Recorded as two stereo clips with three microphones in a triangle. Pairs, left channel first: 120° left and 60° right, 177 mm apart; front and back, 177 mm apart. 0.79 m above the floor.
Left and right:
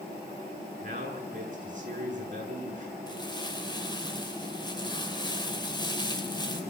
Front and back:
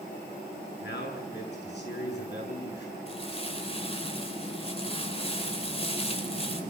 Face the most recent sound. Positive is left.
turn(degrees=55)